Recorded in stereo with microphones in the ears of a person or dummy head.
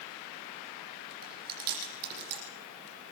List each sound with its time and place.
1.2 s chewing: 50° right (ahead or behind), 8.5 m